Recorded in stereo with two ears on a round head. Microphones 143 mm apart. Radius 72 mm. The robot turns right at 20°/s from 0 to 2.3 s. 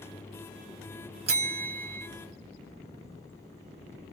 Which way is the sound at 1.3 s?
40° right (ahead or behind).